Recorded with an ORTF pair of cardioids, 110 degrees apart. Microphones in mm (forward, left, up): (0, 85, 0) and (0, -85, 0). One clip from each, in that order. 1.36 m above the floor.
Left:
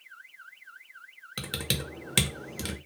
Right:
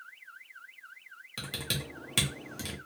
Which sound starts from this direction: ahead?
Typing on a keyboard, at 1.4 s.